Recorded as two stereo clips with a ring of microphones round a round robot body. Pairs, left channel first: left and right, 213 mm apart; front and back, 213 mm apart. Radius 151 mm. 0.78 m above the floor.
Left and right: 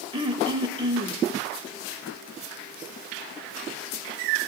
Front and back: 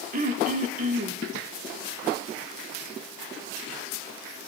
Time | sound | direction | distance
0.1 | throat clearing | 150° right | 0.6 m